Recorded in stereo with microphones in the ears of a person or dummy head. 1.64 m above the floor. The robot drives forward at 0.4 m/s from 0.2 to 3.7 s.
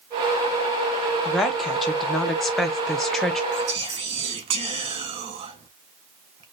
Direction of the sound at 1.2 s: Centre (ahead or behind).